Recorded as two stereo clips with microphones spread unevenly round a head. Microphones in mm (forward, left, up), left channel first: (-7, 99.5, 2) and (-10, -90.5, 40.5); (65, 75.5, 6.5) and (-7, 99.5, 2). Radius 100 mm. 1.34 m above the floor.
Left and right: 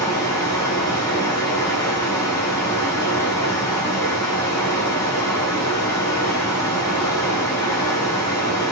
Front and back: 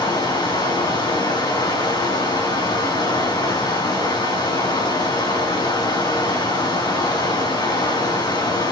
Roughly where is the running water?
Ahead.